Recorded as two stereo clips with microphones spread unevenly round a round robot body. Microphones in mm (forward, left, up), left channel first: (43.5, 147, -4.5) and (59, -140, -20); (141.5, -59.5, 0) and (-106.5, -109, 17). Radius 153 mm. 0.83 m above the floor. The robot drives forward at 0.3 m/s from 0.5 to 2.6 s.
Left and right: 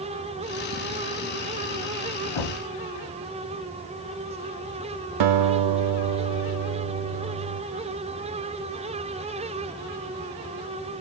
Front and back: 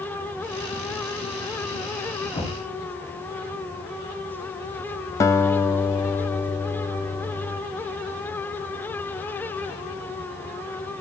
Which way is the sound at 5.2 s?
70° right.